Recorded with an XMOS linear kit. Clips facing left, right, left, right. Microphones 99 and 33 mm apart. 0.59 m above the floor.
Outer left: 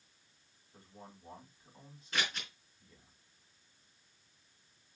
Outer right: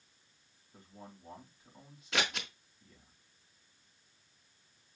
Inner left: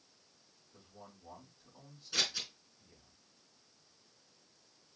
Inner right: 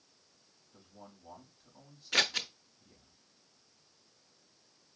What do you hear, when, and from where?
0.7 s a man speaking: centre (ahead or behind), 3 m
2.1 s scissors: 80° right, 0.7 m